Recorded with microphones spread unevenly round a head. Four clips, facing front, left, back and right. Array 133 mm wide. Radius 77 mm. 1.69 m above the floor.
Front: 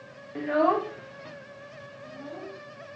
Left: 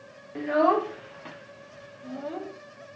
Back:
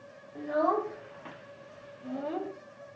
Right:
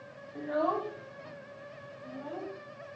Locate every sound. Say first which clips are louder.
0.3 s a child speaking: left 8 dB, front 4 dB; 50° left, 0.8 m; by 2.5 s 150° left, 1.3 m